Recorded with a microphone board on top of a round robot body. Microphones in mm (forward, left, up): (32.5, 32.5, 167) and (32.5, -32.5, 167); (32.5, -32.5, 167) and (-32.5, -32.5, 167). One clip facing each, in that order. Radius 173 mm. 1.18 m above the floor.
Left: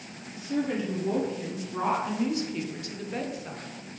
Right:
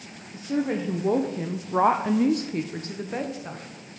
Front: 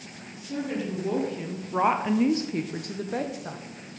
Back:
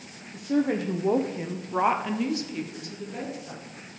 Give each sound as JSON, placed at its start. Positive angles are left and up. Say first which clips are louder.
{"t": 0.3, "sound": "a woman speaking", "louder": "right 3 dB, back 6 dB", "azimuth_deg": -145, "distance_m": 1.4}